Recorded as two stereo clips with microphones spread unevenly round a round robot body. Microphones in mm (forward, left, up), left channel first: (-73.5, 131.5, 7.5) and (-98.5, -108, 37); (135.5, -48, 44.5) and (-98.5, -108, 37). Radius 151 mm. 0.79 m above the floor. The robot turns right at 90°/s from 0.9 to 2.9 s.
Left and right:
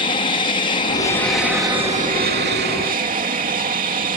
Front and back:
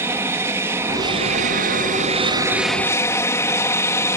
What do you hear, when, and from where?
0.0 s an aircraft: 125° left; by 4.2 s 55° right